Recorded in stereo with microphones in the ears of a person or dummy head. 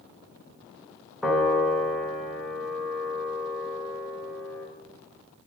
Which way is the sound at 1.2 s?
Centre (ahead or behind).